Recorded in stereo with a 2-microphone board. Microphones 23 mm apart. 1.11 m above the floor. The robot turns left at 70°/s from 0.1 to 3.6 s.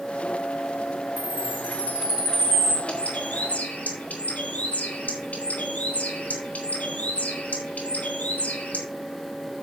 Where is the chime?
85° right, 8.5 m; by 2.8 s 160° left, 8.5 m.